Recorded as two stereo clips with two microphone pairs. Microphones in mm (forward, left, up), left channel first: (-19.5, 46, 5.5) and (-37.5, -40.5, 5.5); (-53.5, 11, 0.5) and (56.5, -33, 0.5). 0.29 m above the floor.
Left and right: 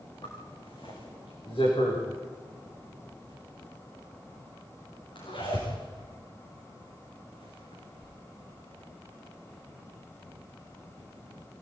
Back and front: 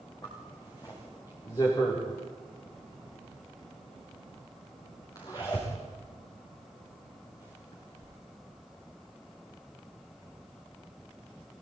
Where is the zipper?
100° left, 9 m.